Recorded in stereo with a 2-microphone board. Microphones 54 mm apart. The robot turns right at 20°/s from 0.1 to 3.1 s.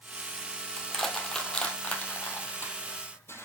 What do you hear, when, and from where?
0.8 s crushing: 5° left (ahead or behind), 1.6 m; by 3.5 s 50° left (ahead or behind), 1.6 m